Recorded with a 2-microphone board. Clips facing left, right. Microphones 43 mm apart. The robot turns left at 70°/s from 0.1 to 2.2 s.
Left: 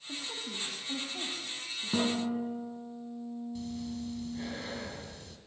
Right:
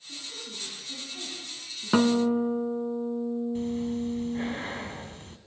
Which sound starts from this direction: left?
A woman speaking, at 0.1 s.